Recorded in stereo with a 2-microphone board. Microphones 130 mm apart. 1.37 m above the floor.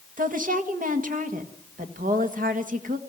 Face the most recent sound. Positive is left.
turn(degrees=-85)